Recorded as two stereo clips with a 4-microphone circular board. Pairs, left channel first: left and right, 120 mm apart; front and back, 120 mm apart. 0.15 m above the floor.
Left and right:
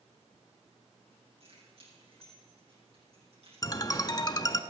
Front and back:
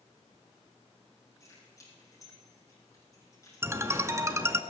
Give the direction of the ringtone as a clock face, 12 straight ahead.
8 o'clock.